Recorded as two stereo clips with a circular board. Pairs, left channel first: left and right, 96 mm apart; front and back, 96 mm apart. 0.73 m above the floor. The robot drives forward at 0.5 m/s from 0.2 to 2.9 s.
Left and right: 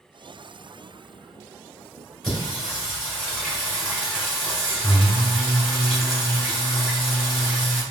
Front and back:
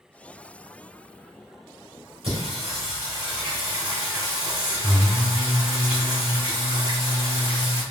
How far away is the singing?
About 2.0 m.